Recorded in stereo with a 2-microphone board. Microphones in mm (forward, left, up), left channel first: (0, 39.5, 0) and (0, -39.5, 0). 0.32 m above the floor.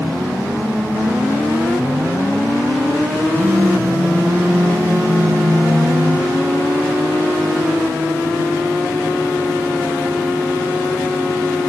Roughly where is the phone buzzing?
Right.